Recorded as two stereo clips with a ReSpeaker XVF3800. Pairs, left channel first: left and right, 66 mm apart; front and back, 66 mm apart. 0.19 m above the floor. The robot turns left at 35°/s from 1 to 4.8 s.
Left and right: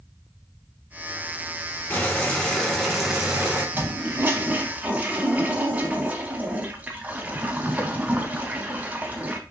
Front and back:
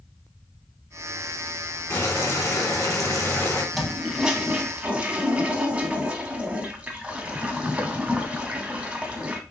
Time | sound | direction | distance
1.9 | boiling | 30° left | 1.5 m
3.7 | a toilet flushing | 90° right | 0.9 m